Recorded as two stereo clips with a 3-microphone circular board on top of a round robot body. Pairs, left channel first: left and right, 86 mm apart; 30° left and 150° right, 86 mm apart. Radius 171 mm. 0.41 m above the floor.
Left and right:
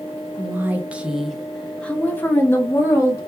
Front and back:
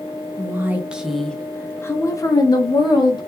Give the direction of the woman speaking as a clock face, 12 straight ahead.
4 o'clock.